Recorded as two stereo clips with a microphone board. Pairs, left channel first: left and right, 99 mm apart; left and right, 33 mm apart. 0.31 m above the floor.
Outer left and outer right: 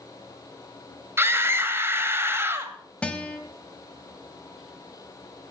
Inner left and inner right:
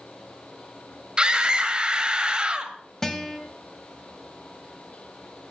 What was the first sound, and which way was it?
A scream, 25° right (ahead or behind).